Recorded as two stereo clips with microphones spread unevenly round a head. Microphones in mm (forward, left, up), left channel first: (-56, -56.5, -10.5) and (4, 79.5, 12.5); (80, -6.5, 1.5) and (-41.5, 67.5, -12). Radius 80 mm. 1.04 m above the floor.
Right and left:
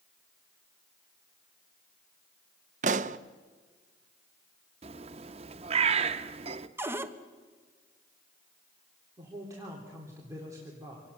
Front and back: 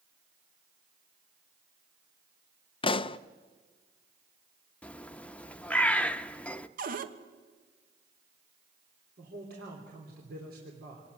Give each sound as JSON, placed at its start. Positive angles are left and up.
{"t": 2.8, "sound": "a pop", "azimuth_deg": 20, "distance_m": 0.5}
{"t": 4.8, "sound": "a bird", "azimuth_deg": 40, "distance_m": 0.7}
{"t": 6.8, "sound": "a cupboard door", "azimuth_deg": 145, "distance_m": 1.2}
{"t": 9.2, "sound": "a man speaking", "azimuth_deg": 135, "distance_m": 3.5}